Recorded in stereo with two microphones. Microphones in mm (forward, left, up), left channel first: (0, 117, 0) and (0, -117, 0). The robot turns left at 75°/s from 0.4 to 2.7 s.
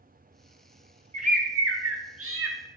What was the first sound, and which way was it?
A bird, 25° right.